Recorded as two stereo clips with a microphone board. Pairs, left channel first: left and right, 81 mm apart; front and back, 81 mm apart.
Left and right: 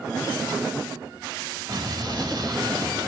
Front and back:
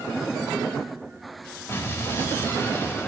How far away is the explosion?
About 1.7 m.